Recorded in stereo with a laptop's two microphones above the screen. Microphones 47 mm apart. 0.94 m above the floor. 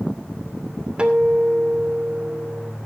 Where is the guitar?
20° right (ahead or behind), 2.5 m.